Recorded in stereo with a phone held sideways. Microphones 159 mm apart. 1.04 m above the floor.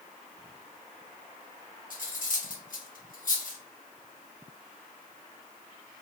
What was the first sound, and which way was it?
Cutlery clinking, 65° left (ahead or behind).